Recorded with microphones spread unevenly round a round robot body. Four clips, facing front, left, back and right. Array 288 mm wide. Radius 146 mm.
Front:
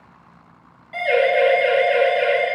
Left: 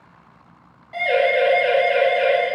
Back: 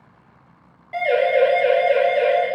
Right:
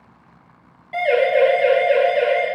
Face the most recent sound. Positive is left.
turn(degrees=-150)